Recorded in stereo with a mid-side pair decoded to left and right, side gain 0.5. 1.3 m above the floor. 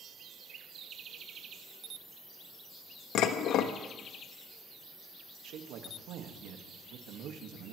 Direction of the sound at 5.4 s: 70° right.